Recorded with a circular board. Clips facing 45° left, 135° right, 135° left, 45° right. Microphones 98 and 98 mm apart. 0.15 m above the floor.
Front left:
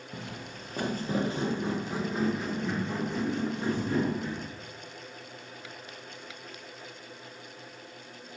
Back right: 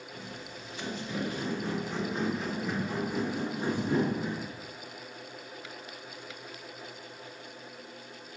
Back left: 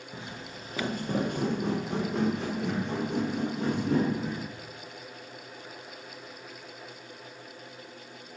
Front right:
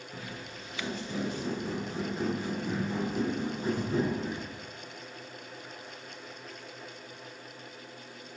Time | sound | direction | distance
0.1 | footsteps | 65° left | 1.3 m